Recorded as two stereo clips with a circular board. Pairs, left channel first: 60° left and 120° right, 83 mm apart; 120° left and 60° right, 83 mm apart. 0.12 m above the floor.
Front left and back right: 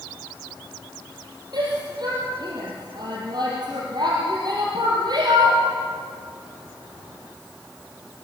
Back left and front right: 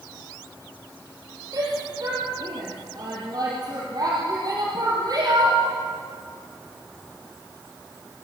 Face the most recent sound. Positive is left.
turn(degrees=-95)